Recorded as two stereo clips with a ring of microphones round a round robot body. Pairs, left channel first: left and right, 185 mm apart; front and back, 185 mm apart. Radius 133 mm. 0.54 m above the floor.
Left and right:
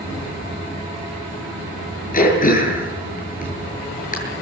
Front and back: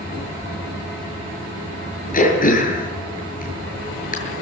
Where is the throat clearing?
45° left, 7.5 m.